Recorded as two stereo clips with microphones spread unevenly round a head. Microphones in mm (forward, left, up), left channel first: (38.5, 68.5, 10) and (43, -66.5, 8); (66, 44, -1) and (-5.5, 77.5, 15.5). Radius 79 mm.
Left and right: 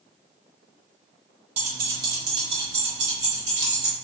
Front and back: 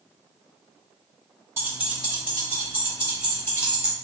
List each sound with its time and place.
1.6 s keys jangling: 140° right, 0.7 m; by 3.9 s 100° right, 3.5 m